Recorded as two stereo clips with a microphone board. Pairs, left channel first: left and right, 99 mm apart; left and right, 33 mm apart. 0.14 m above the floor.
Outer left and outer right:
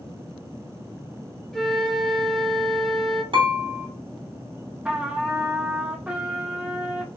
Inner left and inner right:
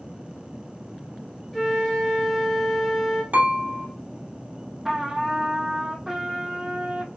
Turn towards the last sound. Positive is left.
turn(degrees=-15)  # may be behind; listen again after turning